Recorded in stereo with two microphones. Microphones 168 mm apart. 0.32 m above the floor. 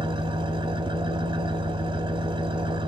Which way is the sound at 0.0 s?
30° right (ahead or behind).